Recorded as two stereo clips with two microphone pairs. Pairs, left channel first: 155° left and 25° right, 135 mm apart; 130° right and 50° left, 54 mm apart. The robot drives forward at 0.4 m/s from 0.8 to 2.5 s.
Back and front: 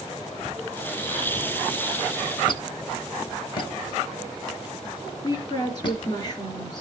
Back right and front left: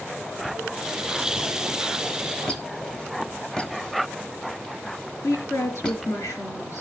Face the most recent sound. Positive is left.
turn(degrees=-145)